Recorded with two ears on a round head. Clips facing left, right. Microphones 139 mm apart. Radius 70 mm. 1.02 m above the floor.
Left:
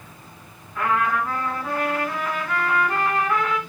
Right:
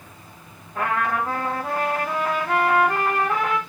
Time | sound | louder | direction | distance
0.8 | a trumpet | left 1 dB | 30° right (ahead or behind) | 4.5 m